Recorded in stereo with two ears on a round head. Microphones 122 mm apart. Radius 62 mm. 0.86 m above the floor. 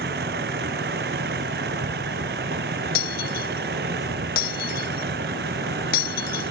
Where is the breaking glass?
85° left.